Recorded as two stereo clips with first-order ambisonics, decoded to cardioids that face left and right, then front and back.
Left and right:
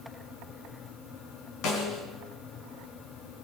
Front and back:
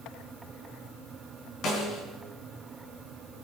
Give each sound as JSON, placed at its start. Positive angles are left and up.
{"t": 1.6, "sound": "a snare drum", "azimuth_deg": 50, "distance_m": 3.0}